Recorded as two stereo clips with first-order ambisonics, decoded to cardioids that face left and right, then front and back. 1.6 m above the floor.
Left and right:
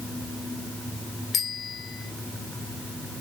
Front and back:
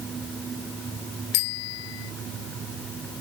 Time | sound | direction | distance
1.3 | a bicycle bell | 20° left | ?